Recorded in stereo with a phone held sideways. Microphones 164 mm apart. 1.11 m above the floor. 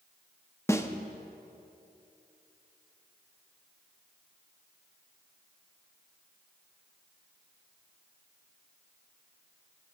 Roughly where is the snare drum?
Centre.